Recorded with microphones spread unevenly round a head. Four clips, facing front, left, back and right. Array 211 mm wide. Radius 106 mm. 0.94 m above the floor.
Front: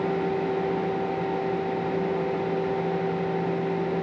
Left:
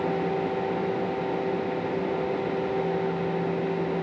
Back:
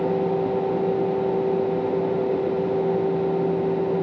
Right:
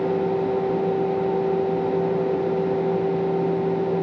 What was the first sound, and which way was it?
Only background noise.